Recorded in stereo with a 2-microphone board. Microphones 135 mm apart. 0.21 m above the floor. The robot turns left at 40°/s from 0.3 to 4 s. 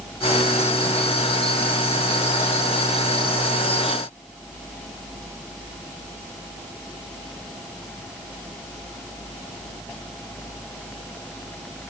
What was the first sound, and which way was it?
Only background noise.